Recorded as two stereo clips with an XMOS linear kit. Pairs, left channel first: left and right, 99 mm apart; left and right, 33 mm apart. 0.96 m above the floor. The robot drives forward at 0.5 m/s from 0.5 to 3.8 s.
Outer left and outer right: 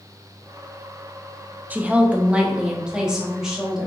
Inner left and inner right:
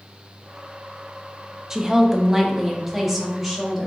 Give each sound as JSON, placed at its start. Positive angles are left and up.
{"t": 1.7, "sound": "a woman speaking", "side_deg": -20, "distance_m": 0.6}